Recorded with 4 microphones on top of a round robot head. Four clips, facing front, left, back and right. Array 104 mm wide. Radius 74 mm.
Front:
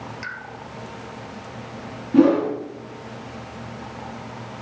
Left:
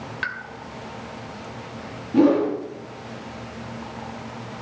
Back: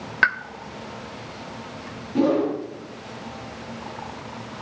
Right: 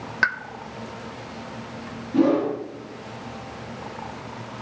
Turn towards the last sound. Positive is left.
turn(degrees=5)